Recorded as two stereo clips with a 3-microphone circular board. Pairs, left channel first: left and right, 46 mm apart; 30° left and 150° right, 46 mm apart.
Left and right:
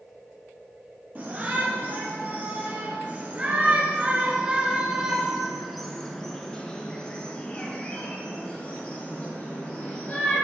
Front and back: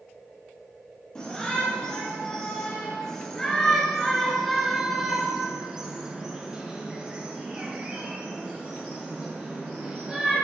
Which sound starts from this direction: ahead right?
A shout, at 1.1 s.